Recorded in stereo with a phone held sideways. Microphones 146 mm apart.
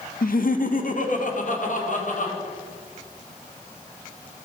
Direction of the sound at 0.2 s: 80° left.